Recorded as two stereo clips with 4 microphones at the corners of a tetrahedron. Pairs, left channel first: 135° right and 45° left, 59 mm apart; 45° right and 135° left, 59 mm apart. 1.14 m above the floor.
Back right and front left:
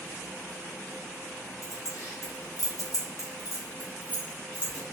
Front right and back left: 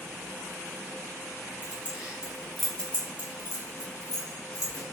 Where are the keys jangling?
165° right, 1.1 m; by 4.8 s 65° right, 1.4 m.